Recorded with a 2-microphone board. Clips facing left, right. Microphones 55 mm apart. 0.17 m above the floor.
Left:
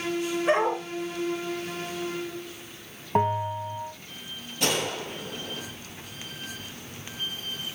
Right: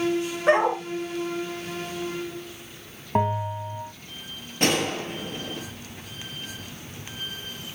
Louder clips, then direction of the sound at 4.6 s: Right 4 dB; 50° right (ahead or behind).